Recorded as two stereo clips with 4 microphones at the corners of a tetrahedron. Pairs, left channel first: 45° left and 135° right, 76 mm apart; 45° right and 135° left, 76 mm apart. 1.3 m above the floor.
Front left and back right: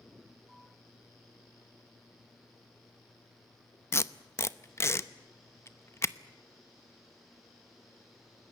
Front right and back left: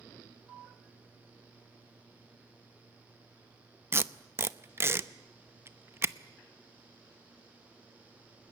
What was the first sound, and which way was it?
Tape being pulled, 85° left.